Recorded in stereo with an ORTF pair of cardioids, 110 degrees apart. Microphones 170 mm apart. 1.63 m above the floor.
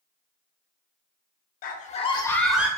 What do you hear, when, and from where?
1.6 s a scream: 60° left, 0.6 m; by 2.7 s 10° right, 0.6 m